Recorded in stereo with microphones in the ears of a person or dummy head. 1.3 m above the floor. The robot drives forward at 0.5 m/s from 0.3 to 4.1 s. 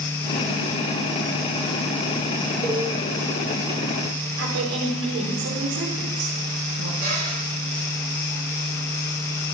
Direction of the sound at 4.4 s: 70° right (ahead or behind).